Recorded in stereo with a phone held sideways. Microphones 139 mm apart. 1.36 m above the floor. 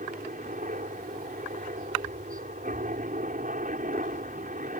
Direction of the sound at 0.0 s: 75° right (ahead or behind).